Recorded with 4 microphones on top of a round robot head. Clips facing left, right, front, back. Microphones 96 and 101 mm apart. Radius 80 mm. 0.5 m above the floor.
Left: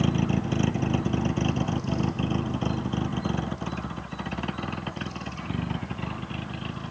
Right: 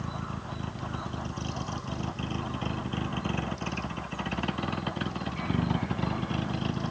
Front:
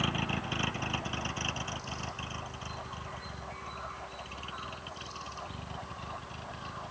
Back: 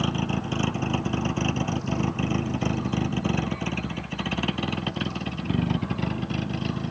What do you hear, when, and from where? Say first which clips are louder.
0.0 s a vehicle: left 11 dB, back 7 dB; 120° left; by 6.9 s 160° right